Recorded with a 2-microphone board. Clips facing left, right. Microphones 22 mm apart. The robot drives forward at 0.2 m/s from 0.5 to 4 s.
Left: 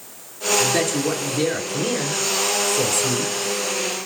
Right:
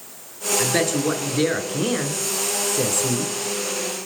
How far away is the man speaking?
About 1.4 m.